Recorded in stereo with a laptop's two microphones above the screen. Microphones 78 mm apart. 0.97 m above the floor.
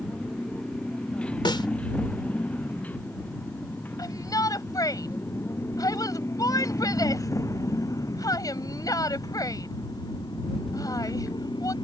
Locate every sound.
0.0 s a motorcycle: 10° left (ahead or behind); by 11.8 s 65° left (ahead or behind)
1.4 s a snare drum: 75° left (ahead or behind)
4.0 s a shout: 50° left (ahead or behind)